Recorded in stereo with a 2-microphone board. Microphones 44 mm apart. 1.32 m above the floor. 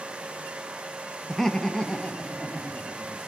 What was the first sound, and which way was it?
Laughter, 5° left (ahead or behind).